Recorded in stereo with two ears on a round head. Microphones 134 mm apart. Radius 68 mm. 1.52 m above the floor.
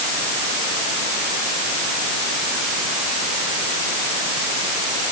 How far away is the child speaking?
No child speaking in this recording.